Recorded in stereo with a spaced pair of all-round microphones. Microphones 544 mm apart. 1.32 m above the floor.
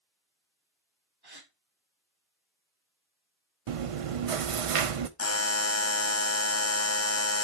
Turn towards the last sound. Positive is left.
turn(degrees=30)  # may be behind; listen again after turning